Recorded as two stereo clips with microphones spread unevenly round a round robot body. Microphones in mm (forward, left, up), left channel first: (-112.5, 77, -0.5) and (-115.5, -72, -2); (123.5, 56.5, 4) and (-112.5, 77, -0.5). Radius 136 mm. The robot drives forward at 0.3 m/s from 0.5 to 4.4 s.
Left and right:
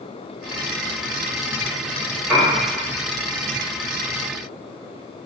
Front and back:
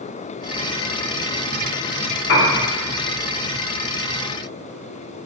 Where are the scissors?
I don't hear scissors.